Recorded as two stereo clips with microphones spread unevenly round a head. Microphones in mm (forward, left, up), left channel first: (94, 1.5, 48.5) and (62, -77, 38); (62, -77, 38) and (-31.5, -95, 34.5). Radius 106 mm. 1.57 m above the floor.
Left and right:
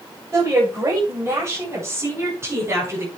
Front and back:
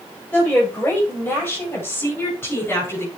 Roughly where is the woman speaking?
Ahead right.